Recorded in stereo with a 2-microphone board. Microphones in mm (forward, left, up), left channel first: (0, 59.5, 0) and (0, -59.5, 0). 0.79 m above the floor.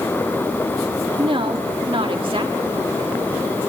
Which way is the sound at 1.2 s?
50° right (ahead or behind).